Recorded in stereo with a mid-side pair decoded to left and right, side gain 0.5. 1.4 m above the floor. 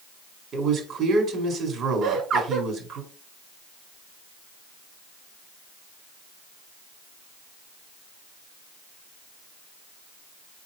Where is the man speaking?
60° right, 4 m.